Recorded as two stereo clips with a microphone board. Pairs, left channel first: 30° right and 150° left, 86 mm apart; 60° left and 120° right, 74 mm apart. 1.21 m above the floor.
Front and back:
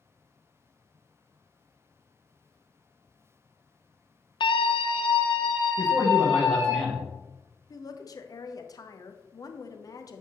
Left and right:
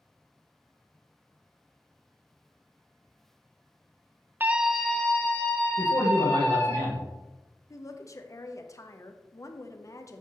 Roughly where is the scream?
Ahead right.